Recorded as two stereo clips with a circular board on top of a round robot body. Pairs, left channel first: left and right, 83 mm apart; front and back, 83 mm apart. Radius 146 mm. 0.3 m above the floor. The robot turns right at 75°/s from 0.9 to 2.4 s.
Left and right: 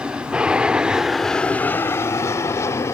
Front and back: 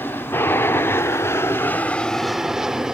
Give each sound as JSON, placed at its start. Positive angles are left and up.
{"t": 0.0, "sound": "an aircraft", "azimuth_deg": -25}